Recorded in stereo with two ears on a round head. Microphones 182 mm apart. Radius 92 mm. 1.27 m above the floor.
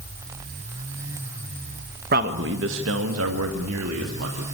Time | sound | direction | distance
2.1 | a man speaking | 45° right (ahead or behind) | 1.3 m